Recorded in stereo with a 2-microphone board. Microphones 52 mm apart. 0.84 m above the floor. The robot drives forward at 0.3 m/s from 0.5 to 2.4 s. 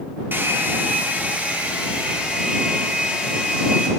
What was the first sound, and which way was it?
A hair dryer, 40° right (ahead or behind).